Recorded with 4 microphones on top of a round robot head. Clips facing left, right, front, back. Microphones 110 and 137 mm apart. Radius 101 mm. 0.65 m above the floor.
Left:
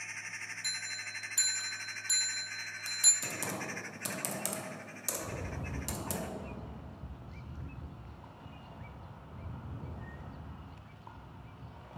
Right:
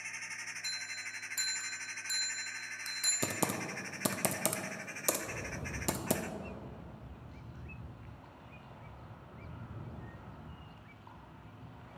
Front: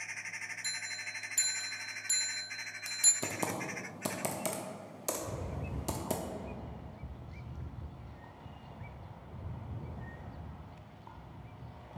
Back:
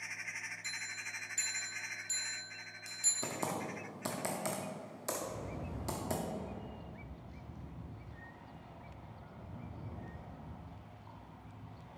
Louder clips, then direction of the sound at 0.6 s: Left 2 dB, front 2 dB; 10° left.